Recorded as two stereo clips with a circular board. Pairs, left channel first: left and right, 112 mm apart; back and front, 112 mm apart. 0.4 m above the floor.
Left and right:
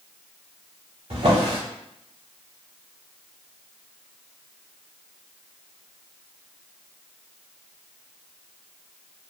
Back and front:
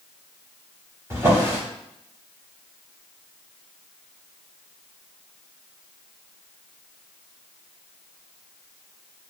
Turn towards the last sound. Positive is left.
turn(degrees=-65)